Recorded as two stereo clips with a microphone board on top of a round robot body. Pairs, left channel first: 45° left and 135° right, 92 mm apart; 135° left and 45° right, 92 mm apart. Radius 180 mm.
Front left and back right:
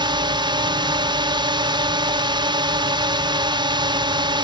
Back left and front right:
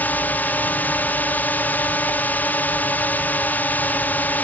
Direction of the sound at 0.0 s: 155° right.